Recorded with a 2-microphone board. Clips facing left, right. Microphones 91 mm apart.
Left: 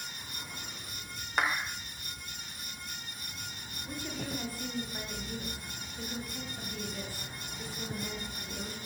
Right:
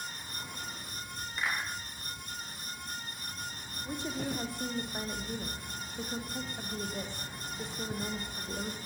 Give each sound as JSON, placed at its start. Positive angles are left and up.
{"t": 1.4, "sound": "a clap", "side_deg": 70, "distance_m": 7.0}
{"t": 3.9, "sound": "a woman speaking", "side_deg": -25, "distance_m": 7.5}